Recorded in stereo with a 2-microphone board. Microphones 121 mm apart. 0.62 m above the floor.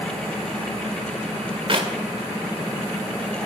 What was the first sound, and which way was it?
A clap, 45° right (ahead or behind).